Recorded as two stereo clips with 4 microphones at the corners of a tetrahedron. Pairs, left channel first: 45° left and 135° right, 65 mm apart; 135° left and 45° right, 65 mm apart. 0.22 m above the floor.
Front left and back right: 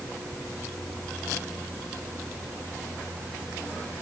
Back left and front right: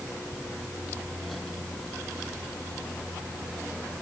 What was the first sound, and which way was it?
Only background noise.